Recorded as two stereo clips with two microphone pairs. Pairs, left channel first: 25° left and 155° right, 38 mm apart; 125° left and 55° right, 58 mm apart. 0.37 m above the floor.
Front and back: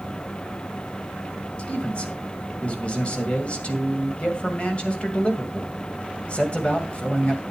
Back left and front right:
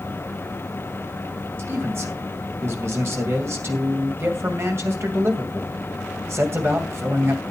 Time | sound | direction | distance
1.6 | a man speaking | 25° right | 2 m